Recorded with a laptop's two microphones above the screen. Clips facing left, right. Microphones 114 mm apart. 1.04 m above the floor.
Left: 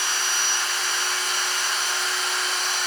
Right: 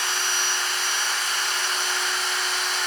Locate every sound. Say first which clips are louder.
0.0 s a machine running: even; 35° left (ahead or behind), 9 m